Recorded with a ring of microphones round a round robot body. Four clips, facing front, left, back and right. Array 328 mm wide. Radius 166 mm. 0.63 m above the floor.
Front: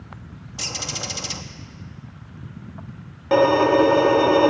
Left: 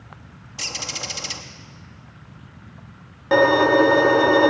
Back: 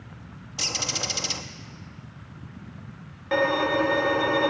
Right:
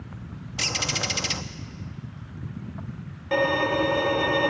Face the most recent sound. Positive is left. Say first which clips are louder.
# left 8 dB, front 8 dB
turn(degrees=40)